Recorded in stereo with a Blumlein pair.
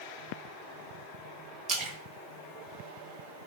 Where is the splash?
30° right, 0.7 m.